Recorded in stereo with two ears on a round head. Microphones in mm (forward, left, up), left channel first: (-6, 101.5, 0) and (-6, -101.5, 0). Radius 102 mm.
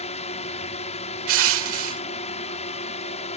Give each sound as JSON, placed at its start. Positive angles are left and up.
{"t": 0.0, "sound": "a drone", "side_deg": 30}
{"t": 1.3, "sound": "crushing", "side_deg": -65}